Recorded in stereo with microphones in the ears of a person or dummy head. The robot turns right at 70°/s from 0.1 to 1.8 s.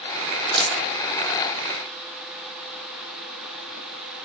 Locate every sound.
0.5 s a dropped coin: centre (ahead or behind), 1.9 m; by 0.8 s 15° left (ahead or behind), 1.9 m